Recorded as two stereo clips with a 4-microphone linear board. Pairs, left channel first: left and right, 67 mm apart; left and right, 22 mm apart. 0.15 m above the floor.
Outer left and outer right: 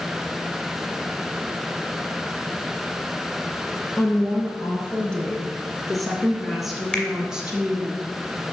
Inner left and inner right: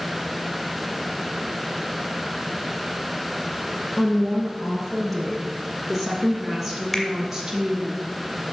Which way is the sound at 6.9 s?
20° left (ahead or behind).